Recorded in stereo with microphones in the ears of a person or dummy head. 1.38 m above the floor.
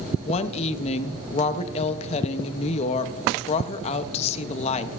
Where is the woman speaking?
40° left (ahead or behind), 0.7 m.